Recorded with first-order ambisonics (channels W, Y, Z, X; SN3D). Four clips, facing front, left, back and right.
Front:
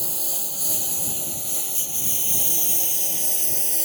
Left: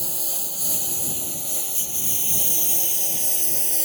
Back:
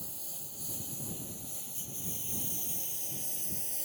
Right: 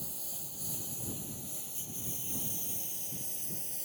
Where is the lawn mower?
40° left; by 3.9 s 50° left.